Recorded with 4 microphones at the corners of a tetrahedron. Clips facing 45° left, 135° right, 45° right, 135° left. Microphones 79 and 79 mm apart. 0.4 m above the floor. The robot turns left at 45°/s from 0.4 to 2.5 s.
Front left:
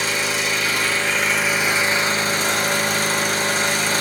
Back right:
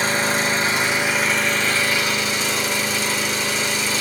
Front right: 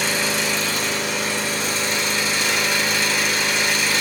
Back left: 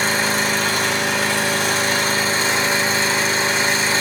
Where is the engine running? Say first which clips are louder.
Back right 3 dB, back left 3 dB; 175° left, 0.9 m; by 4.0 s 85° left, 0.9 m.